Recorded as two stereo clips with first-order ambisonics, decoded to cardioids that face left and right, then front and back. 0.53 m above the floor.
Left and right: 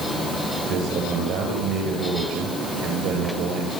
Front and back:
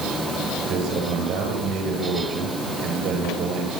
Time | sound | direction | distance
0.7 | a man speaking | 120° right | 8.5 m